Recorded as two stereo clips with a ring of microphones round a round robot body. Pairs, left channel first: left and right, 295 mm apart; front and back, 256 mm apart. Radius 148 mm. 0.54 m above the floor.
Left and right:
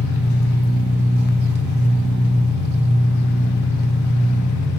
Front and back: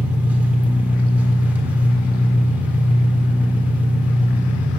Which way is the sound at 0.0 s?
95° left.